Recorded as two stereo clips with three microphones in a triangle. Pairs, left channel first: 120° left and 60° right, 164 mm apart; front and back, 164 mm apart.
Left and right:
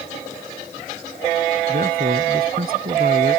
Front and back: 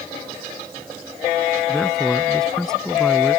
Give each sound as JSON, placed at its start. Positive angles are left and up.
{"t": 1.7, "sound": "a man speaking", "azimuth_deg": -85}